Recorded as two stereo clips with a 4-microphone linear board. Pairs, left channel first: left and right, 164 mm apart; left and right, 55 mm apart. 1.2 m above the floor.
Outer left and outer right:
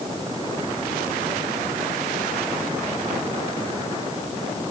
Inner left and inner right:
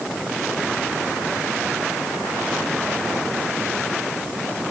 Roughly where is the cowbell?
I don't hear a cowbell.